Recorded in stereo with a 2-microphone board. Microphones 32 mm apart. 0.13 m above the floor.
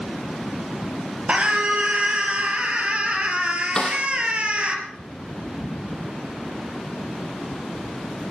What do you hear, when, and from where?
1.3 s a scream: 35° right (ahead or behind), 3.5 m
3.8 s a snare drum: 30° left (ahead or behind), 3 m